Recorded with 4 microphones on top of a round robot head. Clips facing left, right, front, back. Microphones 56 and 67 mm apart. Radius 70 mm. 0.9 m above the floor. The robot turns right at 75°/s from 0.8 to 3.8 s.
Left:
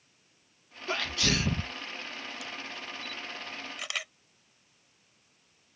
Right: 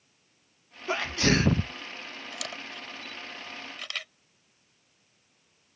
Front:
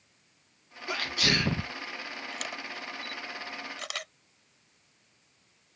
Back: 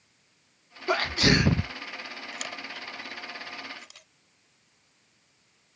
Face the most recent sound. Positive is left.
turn(degrees=10)